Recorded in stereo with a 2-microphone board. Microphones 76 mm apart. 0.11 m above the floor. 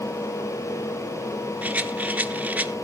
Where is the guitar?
No guitar in this recording.